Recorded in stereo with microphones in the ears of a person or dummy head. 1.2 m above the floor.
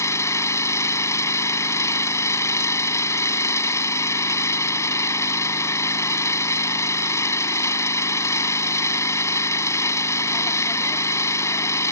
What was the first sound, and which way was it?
An engine running, 15° left (ahead or behind).